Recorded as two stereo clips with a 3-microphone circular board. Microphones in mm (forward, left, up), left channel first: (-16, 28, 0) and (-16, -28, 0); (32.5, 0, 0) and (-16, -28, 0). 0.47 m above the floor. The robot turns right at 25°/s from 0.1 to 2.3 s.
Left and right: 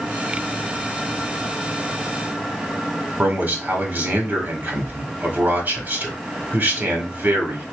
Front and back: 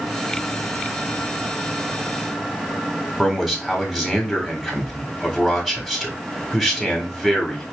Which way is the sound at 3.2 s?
65° right.